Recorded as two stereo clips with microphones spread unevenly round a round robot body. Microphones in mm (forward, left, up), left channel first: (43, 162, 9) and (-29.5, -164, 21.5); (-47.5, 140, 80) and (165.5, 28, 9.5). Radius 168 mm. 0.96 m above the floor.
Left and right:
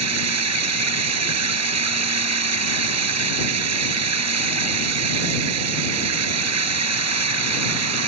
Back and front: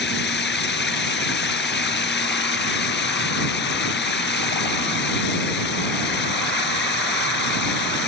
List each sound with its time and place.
0.0 s running water: 150° right